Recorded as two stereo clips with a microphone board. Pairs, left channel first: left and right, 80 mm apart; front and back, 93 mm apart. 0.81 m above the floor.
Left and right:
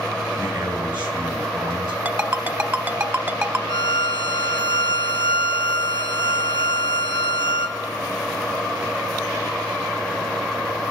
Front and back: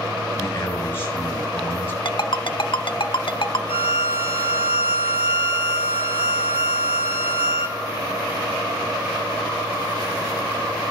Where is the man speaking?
60° right, 4 m.